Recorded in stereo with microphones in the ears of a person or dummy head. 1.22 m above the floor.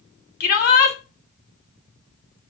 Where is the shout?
45° left (ahead or behind), 3 m.